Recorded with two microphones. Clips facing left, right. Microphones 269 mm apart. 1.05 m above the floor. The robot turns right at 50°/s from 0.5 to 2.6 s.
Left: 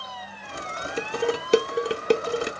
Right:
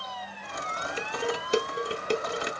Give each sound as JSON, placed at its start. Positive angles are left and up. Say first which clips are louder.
{"t": 1.0, "sound": "dishes clattering", "louder": "left 6 dB", "side_deg": 50, "distance_m": 0.5}